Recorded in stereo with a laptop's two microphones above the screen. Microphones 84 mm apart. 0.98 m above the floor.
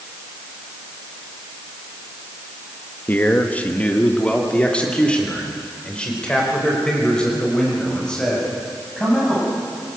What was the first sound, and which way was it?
A man speaking, 20° left (ahead or behind).